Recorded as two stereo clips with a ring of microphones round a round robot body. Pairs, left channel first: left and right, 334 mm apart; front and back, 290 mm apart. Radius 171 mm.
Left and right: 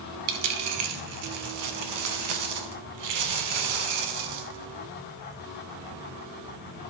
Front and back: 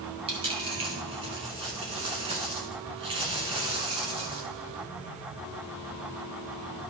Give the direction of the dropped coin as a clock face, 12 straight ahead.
4 o'clock.